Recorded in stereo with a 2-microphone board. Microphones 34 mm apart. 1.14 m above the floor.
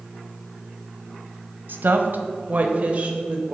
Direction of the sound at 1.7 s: 65° right (ahead or behind).